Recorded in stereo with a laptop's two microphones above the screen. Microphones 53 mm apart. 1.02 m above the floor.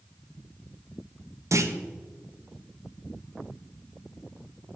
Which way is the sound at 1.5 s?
70° right (ahead or behind).